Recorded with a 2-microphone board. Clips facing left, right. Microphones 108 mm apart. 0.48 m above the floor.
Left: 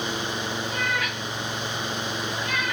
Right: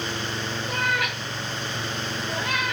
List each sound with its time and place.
0.7 s a cat meowing: 60° right (ahead or behind), 5 m